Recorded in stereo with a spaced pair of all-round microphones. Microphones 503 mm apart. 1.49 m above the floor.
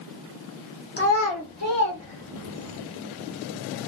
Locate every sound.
1.0 s a child speaking: 20° left (ahead or behind), 0.6 m; by 2.8 s 75° left (ahead or behind), 1.7 m